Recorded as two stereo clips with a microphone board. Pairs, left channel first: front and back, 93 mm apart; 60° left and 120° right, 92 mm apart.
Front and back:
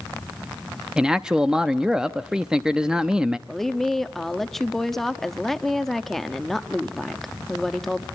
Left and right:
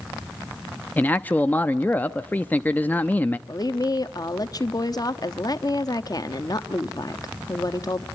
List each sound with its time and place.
1.0 s a man speaking: 110° left, 0.6 m
3.5 s a woman speaking: 85° left, 0.9 m